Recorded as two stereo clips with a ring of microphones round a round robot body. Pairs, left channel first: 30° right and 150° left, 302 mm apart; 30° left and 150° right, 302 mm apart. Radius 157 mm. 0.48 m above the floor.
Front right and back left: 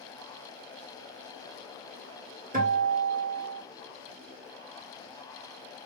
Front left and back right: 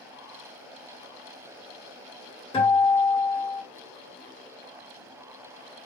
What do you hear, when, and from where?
2.5 s a guitar: 95° left, 1.4 m